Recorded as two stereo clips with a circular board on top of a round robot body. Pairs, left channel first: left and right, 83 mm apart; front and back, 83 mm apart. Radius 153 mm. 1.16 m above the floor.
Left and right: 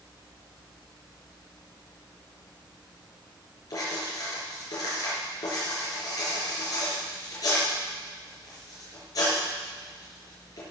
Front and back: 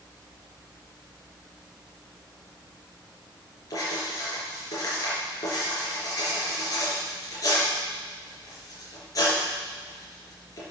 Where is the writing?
45° left, 4 m.